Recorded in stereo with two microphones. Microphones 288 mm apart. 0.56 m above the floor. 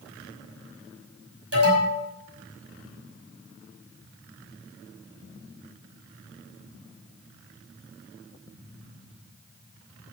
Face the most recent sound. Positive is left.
turn(degrees=-55)  # may be behind; listen again after turning